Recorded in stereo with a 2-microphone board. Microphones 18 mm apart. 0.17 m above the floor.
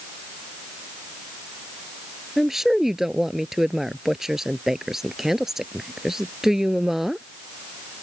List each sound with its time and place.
2.4 s a woman speaking: 25° right (ahead or behind)